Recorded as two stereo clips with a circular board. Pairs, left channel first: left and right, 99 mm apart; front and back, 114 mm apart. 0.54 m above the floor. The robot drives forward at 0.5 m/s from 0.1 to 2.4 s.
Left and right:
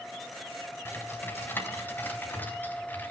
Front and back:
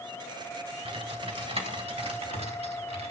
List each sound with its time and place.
0.8 s typing on a keyboard: 155° left, 3 m; by 3.1 s 160° left, 3.5 m